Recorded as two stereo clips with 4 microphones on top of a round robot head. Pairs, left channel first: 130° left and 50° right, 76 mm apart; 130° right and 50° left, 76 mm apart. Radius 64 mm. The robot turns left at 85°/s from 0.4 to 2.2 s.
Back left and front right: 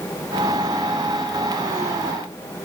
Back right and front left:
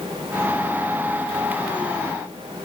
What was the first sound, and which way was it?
Only background noise.